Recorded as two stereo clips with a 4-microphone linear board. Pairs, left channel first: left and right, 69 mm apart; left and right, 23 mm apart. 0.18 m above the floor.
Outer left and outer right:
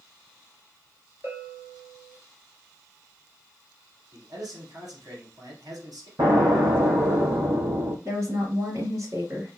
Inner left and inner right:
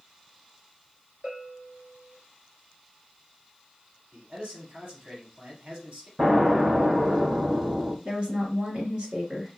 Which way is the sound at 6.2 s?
75° right (ahead or behind).